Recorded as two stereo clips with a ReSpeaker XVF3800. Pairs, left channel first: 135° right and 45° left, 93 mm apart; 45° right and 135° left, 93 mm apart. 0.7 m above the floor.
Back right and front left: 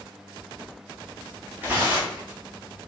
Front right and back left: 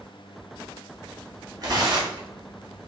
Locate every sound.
1.6 s tearing paper: 105° left, 1.0 m